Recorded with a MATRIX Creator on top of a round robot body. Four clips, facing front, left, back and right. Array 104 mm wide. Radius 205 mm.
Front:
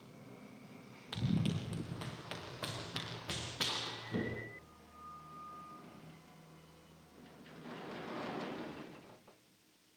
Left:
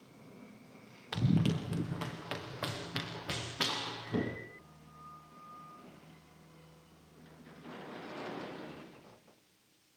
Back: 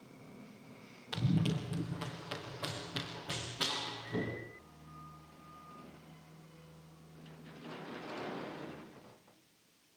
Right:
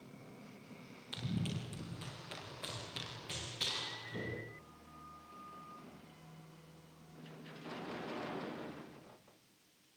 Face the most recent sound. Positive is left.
turn(degrees=80)